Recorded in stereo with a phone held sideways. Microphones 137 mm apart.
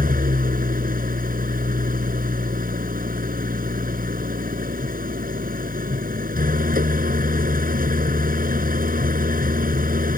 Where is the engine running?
85° right.